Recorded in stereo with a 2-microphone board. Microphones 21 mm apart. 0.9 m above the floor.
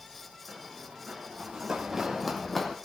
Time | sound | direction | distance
0.5 | running footsteps | 55° right (ahead or behind) | 3 m